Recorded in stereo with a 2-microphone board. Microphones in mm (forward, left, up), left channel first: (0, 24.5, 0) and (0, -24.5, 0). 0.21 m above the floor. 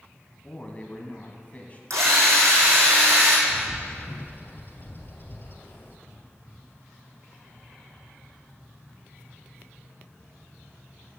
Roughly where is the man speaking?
Left.